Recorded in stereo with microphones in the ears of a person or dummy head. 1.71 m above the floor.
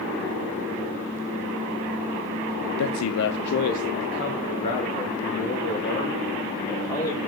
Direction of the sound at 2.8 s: 85° left.